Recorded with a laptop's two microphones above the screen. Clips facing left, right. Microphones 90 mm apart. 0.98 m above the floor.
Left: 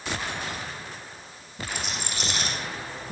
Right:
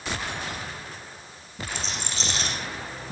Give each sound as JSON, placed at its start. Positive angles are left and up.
{"t": 1.7, "sound": "a rattle", "side_deg": 15, "distance_m": 9.5}